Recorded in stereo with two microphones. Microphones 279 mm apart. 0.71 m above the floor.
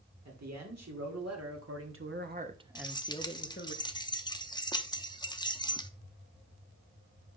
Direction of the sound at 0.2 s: 75° right (ahead or behind).